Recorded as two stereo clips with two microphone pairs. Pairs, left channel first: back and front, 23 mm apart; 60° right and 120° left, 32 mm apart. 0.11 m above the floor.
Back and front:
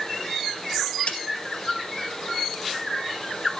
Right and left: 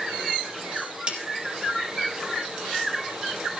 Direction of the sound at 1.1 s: 165° left.